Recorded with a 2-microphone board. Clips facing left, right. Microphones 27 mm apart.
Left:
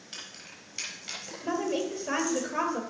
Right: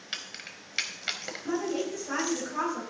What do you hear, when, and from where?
0.1 s keys jangling: 55° right (ahead or behind), 1.4 m
1.4 s a woman speaking: 60° left (ahead or behind), 3 m